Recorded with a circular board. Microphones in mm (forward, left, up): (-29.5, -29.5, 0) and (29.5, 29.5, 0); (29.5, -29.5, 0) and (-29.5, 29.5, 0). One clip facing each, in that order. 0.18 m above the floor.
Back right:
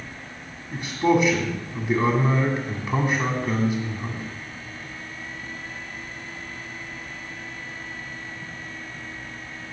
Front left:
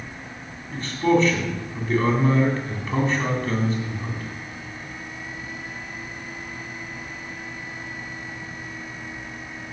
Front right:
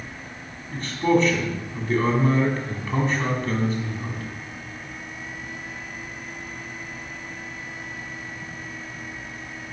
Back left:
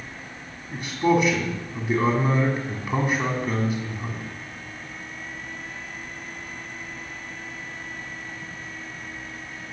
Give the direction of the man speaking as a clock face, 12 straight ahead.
6 o'clock.